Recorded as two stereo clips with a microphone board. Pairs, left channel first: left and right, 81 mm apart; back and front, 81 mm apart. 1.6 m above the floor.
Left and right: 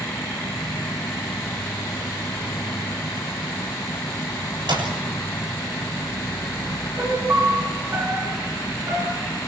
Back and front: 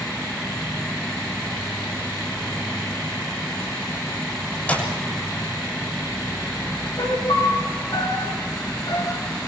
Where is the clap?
105° right, 7 m.